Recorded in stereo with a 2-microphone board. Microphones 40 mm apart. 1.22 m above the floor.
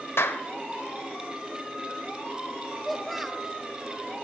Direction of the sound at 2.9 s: Centre (ahead or behind).